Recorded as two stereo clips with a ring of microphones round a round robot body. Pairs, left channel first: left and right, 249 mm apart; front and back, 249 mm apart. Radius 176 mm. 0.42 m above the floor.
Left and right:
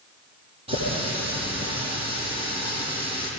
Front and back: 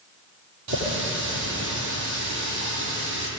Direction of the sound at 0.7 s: 165° right.